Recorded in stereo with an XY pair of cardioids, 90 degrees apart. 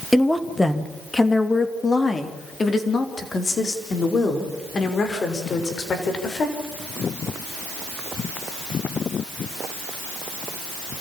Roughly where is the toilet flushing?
No toilet flushing in this recording.